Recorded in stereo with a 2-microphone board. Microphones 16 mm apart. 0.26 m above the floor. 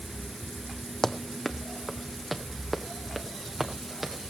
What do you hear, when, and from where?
1.0 s running footsteps: 35° left (ahead or behind), 0.8 m; by 4.3 s 15° right (ahead or behind), 2.5 m